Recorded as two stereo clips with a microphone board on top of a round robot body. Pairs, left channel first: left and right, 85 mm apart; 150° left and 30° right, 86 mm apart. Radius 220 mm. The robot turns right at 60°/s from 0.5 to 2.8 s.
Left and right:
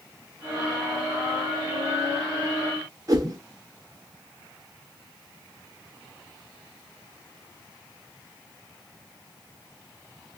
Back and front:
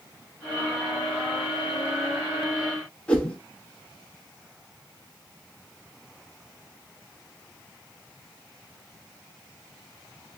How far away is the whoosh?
About 1.6 m.